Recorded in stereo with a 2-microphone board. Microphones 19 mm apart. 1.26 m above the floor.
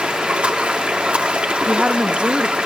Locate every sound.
0.0 s running water: 80° right, 1.8 m
1.7 s a woman speaking: 80° right, 1.6 m